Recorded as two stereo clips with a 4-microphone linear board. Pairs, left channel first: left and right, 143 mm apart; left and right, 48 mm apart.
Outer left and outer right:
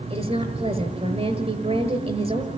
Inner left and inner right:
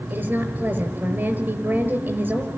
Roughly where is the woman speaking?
Right.